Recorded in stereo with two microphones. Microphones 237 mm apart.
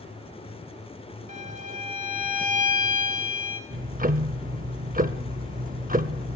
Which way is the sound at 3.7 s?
35° right (ahead or behind).